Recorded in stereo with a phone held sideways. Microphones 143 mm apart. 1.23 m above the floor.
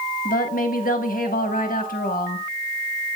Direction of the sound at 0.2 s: 80° left.